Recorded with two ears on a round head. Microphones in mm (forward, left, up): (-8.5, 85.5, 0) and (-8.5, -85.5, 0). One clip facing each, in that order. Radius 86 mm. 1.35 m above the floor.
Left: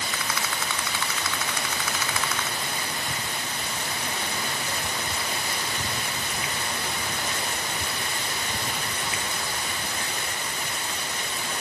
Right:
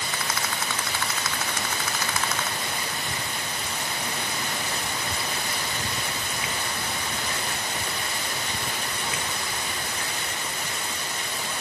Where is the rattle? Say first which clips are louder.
Right 2 dB; 40° right (ahead or behind).